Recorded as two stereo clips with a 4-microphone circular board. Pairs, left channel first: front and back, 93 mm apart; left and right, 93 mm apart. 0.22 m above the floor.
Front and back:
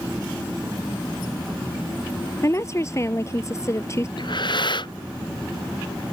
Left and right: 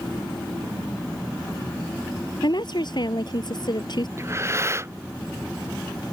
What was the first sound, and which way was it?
A woman speaking, 55° left.